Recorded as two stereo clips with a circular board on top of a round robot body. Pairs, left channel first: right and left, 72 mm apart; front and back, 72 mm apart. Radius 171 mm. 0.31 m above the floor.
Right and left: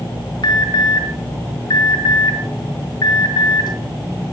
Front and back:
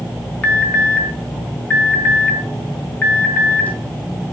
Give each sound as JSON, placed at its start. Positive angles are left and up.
{"t": 0.4, "sound": "an alarm", "azimuth_deg": -70, "distance_m": 4.5}